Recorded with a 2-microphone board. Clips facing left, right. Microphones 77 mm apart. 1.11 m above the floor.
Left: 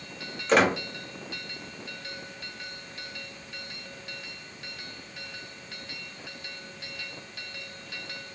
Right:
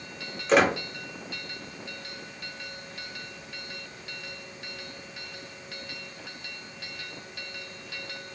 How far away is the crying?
I don't hear crying.